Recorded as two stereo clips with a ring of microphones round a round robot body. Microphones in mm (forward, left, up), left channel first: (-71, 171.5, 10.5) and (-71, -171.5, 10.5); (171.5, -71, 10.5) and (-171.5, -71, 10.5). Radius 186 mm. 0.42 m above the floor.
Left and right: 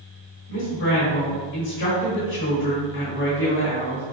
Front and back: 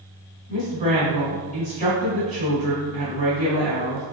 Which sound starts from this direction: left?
A woman speaking, at 0.5 s.